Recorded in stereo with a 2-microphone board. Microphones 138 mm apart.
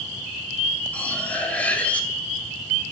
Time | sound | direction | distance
0.9 | cutlery clinking | 10° left (ahead or behind) | 2 m